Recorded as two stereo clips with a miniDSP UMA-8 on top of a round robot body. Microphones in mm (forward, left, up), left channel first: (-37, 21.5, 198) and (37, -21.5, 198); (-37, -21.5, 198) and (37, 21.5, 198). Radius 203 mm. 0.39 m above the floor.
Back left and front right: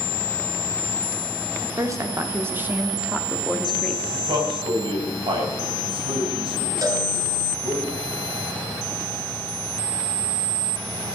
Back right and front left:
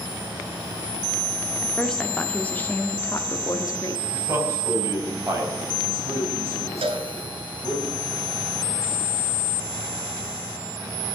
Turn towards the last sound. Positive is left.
turn(degrees=20)